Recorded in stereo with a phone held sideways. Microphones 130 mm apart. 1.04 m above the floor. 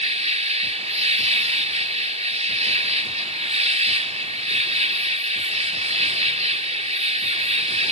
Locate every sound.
0.0 s an insect: 60° right (ahead or behind)